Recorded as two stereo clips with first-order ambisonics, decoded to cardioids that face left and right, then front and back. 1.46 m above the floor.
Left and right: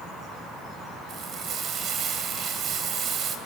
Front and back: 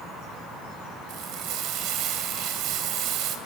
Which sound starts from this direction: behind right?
Frying, at 1.1 s.